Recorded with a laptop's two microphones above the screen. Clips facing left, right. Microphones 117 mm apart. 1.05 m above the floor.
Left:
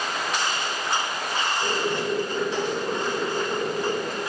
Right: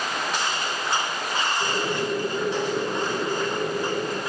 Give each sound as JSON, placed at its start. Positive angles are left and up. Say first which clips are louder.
{"t": 1.6, "sound": "boiling", "louder": "even", "side_deg": -10, "distance_m": 4.0}